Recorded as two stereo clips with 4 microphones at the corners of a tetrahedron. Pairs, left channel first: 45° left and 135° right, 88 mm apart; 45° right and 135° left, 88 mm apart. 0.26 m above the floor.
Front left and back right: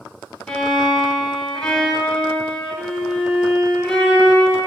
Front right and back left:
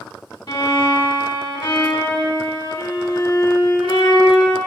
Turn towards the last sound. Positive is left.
turn(degrees=-35)